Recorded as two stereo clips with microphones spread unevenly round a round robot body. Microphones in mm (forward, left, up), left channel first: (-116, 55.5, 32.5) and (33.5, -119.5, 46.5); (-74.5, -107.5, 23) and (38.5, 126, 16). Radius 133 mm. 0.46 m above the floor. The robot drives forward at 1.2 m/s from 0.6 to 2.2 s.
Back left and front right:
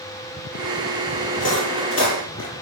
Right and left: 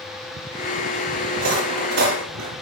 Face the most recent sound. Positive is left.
turn(degrees=90)